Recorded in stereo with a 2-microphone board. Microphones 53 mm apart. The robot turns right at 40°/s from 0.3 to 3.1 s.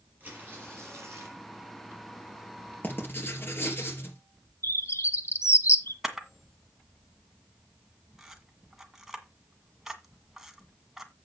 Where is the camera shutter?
5° right (ahead or behind), 1.7 m.